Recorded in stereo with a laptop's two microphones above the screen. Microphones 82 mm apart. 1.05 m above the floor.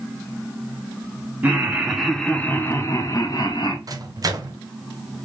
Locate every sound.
1.4 s laughter: 20° right (ahead or behind), 1.0 m; by 3.8 s 55° left (ahead or behind), 1.2 m
3.9 s a microwave: 50° right (ahead or behind), 0.6 m